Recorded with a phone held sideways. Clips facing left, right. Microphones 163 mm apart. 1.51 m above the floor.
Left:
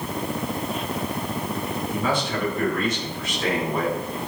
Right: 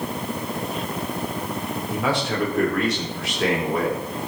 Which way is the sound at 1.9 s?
75° right (ahead or behind).